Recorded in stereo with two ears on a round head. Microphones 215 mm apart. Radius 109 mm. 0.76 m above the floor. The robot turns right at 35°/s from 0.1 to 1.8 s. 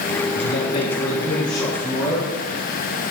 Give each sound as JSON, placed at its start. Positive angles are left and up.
{"t": 0.3, "sound": "a man speaking", "azimuth_deg": 120, "distance_m": 6.0}